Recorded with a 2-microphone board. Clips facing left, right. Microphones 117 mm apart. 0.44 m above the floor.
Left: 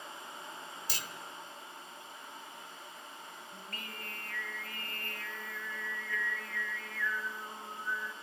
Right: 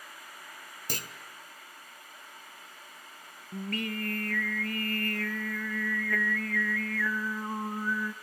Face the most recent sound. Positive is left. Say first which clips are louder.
# right 17 dB
turn(degrees=-70)  # may be behind; listen again after turning